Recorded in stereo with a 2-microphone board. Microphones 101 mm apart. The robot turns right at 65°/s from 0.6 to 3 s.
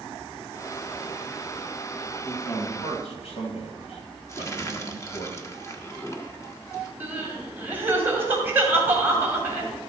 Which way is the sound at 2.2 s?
25° left.